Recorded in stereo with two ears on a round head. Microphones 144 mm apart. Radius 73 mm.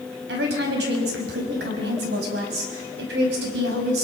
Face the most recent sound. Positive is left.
turn(degrees=-70)  # may be behind; listen again after turning